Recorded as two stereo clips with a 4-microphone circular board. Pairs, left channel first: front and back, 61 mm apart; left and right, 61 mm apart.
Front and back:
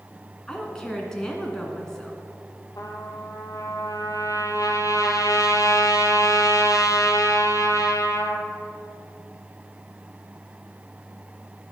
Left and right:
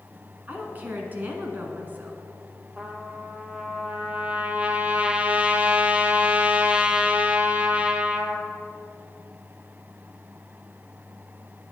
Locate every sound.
0.5 s a woman speaking: 70° right, 1.5 m
2.8 s a trumpet: 20° right, 0.8 m